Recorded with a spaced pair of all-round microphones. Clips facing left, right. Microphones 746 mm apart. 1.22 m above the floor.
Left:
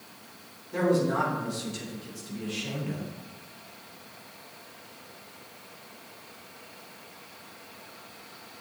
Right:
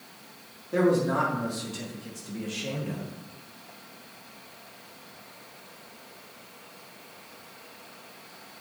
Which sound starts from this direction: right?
A man speaking, at 0.7 s.